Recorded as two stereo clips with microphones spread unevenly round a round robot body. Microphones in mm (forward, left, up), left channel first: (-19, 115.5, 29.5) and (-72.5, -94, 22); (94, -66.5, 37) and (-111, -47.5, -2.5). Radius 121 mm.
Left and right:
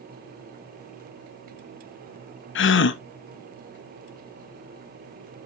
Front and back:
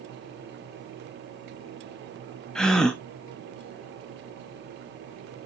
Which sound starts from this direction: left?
A gasp, at 2.5 s.